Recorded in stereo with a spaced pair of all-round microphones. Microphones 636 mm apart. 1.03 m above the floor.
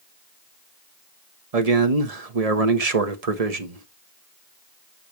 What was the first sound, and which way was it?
A man speaking, 70° right (ahead or behind).